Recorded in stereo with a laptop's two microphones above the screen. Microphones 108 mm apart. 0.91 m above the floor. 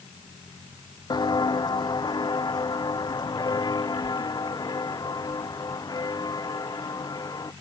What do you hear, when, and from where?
1.1 s footsteps: 40° left (ahead or behind); by 7.5 s 35° left (ahead or behind)